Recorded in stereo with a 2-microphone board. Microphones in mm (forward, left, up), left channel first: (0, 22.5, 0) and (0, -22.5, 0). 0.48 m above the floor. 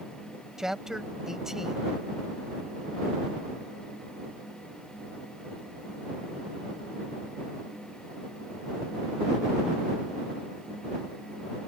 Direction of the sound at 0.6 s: 10° right (ahead or behind).